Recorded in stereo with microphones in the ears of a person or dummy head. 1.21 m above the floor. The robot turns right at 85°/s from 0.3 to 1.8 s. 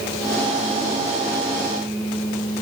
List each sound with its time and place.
Only background noise.